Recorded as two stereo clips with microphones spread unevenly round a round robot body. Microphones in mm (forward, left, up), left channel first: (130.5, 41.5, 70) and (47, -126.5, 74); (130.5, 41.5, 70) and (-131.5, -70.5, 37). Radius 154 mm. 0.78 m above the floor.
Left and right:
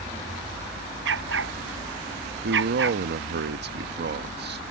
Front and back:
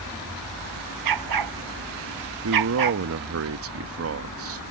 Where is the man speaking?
135° right.